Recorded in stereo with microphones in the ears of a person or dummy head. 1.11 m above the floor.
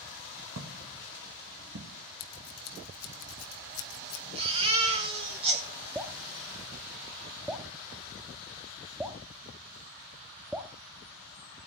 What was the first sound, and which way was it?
Footsteps, 55° right (ahead or behind).